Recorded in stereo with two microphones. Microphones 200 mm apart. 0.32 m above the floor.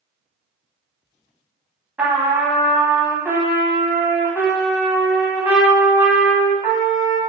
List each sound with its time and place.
2.0 s a trumpet: 10° right (ahead or behind), 0.6 m